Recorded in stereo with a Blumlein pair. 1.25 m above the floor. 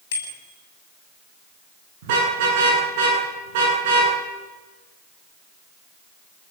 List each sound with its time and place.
0.1 s a bicycle bell: 55° left, 7 m
2.0 s a car horn: 50° right, 9 m